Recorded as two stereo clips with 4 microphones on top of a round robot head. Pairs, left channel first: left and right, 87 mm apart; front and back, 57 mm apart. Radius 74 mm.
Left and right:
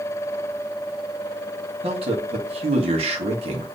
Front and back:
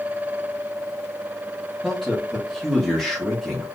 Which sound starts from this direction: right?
A man speaking, at 1.8 s.